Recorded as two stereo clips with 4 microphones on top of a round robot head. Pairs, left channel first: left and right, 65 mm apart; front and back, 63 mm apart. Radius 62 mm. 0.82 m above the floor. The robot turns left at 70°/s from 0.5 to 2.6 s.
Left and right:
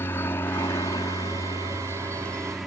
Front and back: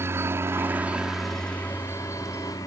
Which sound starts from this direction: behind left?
A helicopter, at 0.0 s.